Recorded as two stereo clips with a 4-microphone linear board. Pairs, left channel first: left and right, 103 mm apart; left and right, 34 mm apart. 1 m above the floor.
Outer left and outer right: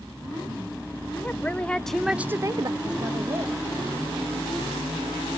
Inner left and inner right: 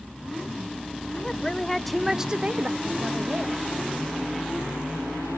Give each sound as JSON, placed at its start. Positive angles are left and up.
{"t": 1.1, "sound": "a woman speaking", "side_deg": 20, "distance_m": 1.3}